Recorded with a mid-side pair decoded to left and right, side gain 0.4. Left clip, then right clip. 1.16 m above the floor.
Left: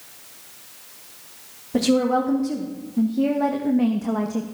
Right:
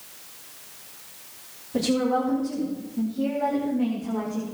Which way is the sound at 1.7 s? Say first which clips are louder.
Left 4 dB; 55° left.